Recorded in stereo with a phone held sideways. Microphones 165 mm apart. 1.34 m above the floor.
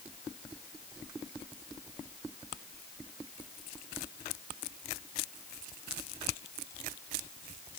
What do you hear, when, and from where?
Only background noise.